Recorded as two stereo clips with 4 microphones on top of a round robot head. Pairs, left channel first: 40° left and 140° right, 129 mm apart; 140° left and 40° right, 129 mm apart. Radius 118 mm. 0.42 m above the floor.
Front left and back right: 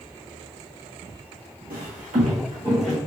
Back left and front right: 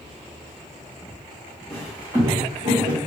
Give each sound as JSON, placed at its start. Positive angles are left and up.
{"t": 1.7, "sound": "footsteps", "azimuth_deg": -135, "distance_m": 1.1}